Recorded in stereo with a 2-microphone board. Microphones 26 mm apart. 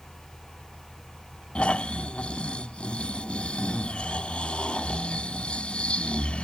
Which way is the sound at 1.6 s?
50° left (ahead or behind).